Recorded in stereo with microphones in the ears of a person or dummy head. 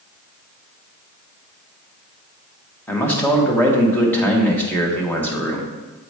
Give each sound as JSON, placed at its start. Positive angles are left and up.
{"t": 2.9, "sound": "a man speaking", "side_deg": 15, "distance_m": 1.0}